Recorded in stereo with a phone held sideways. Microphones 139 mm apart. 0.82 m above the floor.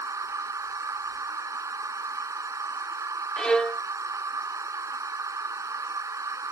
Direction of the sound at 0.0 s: 25° right (ahead or behind).